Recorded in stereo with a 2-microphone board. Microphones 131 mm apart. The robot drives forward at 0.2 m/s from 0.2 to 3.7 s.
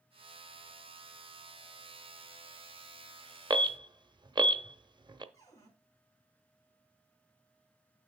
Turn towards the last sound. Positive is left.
turn(degrees=25)  # may be behind; listen again after turning